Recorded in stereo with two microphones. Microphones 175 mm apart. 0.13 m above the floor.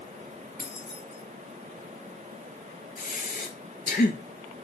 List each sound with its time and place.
0.6 s keys jangling: 60° left (ahead or behind), 2 m
3.0 s breathing: 65° left (ahead or behind), 0.9 m